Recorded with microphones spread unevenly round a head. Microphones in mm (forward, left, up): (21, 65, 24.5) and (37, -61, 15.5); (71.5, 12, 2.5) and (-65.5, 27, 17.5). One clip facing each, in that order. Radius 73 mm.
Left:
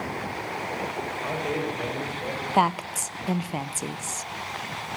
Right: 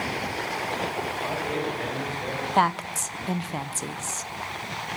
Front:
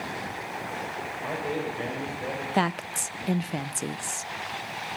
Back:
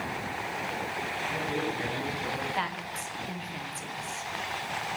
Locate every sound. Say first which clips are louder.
1.2 s a man speaking: left 2 dB, front 2 dB; 20° left, 7.5 m
2.5 s a woman speaking: even, front 7 dB; 20° left, 0.9 m